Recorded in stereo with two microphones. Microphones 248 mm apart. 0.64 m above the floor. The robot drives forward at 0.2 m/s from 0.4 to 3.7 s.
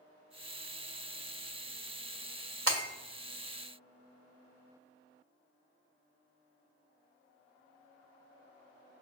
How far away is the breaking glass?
About 1.5 m.